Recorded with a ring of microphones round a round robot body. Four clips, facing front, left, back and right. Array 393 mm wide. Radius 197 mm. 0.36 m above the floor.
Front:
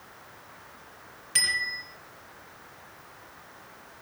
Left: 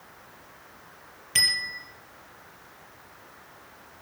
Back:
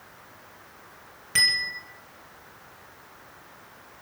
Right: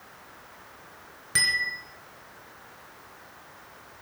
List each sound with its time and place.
1.4 s a bicycle bell: 120° right, 4 m